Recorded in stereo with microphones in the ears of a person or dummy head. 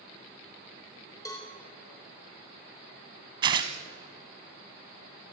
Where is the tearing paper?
30° right (ahead or behind), 1.5 m.